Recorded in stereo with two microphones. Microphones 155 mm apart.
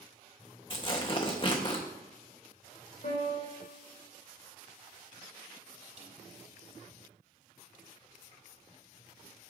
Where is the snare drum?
50° right (ahead or behind), 3 m.